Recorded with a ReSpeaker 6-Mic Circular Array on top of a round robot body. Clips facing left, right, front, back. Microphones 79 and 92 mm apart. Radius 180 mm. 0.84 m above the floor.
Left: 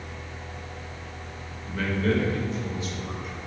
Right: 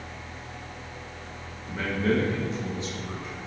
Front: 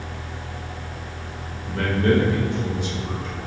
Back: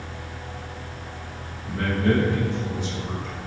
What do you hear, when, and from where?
1.6 s a man speaking: 15° right, 1.9 m; by 3.3 s 35° right, 3 m